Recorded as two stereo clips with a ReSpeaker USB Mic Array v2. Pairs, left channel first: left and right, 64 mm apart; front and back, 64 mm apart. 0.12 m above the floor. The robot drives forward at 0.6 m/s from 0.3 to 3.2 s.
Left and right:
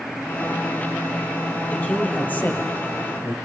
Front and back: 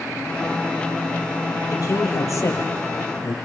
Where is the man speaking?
25° left, 3 m; by 3.4 s 35° left, 2.5 m.